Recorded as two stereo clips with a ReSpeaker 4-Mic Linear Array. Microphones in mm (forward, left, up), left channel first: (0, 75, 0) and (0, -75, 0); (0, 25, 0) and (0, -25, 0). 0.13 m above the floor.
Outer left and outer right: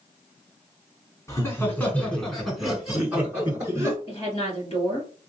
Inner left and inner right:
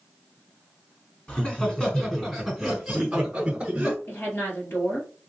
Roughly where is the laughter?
Left.